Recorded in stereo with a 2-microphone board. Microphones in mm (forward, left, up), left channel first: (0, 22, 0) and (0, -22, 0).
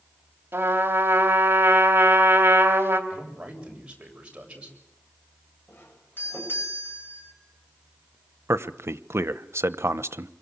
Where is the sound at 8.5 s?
75° right (ahead or behind), 0.9 m.